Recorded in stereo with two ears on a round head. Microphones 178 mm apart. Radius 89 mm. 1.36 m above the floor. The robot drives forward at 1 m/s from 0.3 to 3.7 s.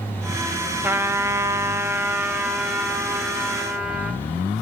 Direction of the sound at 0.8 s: 10° right (ahead or behind).